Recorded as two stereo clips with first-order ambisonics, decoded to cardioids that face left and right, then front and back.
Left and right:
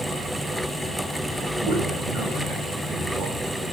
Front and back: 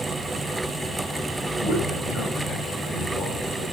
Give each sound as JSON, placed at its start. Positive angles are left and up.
{"t": 1.5, "sound": "a man speaking", "azimuth_deg": -25, "distance_m": 9.0}